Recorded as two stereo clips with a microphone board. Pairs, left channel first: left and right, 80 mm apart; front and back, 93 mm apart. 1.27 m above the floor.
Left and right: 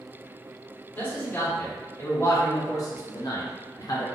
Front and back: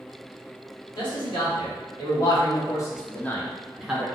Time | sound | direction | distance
0.9 | a man speaking | 25° left | 1.8 m